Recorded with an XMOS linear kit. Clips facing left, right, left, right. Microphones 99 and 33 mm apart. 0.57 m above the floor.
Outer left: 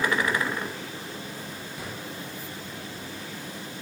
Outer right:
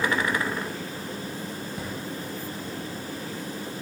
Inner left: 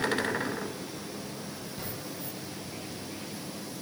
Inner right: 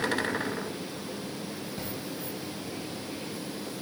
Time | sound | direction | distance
1.8 | a drawer | 30° right (ahead or behind) | 3 m